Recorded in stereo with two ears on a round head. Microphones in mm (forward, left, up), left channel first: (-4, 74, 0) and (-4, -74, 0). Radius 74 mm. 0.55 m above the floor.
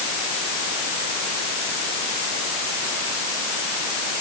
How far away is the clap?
I don't hear a clap.